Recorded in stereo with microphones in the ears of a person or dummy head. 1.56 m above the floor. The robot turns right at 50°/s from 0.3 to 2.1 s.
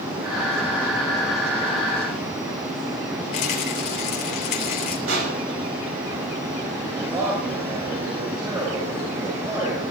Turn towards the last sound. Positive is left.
turn(degrees=-25)  # may be behind; listen again after turning